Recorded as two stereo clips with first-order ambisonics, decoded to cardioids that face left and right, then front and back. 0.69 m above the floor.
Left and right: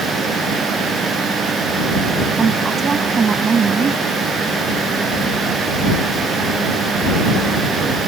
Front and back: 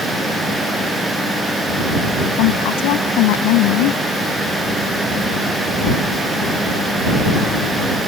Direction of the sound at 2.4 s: 20° right.